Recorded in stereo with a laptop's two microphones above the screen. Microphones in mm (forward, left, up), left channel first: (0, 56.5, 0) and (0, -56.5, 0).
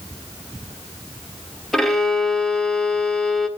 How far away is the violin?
About 1.6 m.